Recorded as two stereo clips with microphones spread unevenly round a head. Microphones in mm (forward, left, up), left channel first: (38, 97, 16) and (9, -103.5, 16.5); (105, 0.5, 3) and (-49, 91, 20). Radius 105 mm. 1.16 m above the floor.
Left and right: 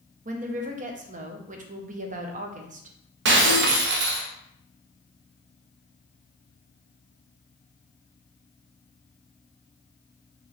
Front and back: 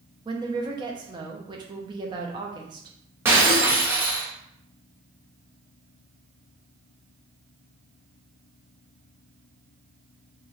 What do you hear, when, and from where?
0.2 s a woman speaking: 145° right, 0.6 m
3.2 s breaking glass: 135° right, 0.6 m